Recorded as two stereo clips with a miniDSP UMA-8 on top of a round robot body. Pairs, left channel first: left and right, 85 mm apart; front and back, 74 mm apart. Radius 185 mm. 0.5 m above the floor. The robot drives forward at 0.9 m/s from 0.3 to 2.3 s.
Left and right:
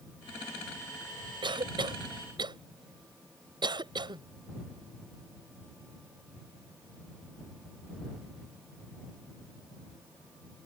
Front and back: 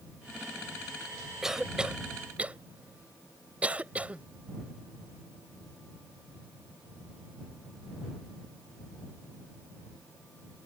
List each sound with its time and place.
1.4 s a cough: 95° right; by 4.2 s 110° right